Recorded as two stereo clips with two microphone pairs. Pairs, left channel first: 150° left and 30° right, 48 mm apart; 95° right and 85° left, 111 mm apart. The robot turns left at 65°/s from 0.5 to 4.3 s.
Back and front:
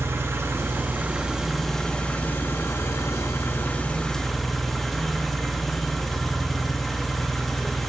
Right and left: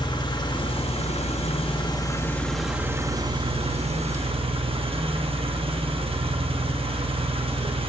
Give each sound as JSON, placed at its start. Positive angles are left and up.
{"t": 0.0, "sound": "an engine running", "azimuth_deg": -50, "distance_m": 1.0}